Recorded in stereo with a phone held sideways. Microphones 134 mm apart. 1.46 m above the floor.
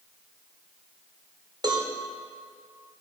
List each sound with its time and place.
1.6 s a cowbell: 30° right (ahead or behind), 1.3 m